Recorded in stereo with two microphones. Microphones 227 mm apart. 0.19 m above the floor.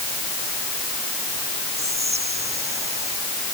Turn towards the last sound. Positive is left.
turn(degrees=-30)  # may be behind; listen again after turning